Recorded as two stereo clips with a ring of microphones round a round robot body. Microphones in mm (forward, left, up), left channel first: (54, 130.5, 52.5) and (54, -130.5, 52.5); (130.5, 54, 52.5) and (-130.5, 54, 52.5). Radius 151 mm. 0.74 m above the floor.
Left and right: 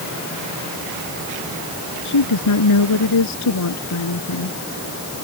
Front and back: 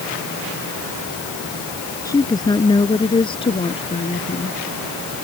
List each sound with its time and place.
2.0 s a woman speaking: 75° left; by 4.5 s 65° left